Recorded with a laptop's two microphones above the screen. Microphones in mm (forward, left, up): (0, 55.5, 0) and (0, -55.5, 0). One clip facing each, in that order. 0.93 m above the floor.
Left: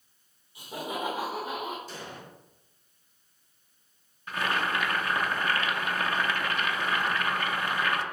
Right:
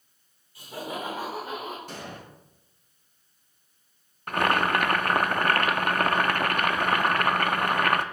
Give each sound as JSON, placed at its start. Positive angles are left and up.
{"t": 0.6, "sound": "laughter", "side_deg": 20, "distance_m": 3.5}
{"t": 1.9, "sound": "an explosion", "side_deg": -60, "distance_m": 3.0}
{"t": 4.3, "sound": "boiling", "side_deg": -55, "distance_m": 0.5}